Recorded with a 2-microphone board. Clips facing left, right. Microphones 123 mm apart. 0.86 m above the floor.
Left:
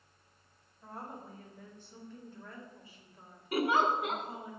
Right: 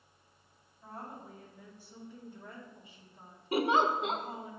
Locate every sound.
0.8 s a woman speaking: centre (ahead or behind), 2.5 m; by 4.5 s 45° right (ahead or behind), 2 m
3.5 s a giggle: 25° right (ahead or behind), 0.8 m